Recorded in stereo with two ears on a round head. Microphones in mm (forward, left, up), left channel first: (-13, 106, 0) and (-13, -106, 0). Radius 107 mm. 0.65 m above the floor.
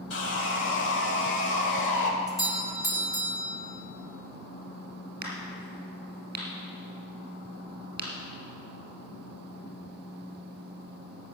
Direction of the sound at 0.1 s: 55° left (ahead or behind).